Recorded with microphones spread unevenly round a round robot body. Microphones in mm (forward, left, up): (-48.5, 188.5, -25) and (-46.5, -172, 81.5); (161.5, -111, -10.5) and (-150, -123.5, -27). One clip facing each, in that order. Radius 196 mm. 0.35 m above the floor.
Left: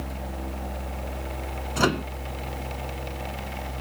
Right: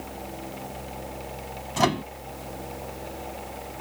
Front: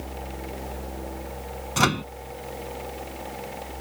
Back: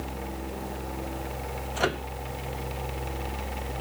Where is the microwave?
Straight ahead.